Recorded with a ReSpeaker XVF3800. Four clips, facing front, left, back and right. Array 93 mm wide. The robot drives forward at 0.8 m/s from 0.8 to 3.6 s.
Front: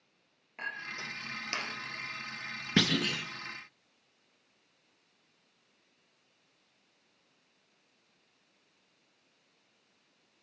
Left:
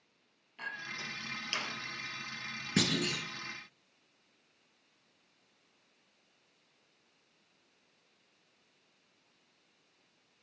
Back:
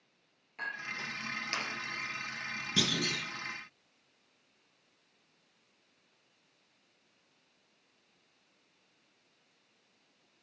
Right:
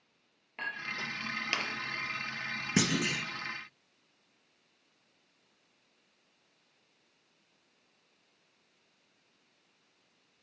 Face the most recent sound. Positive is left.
turn(degrees=-70)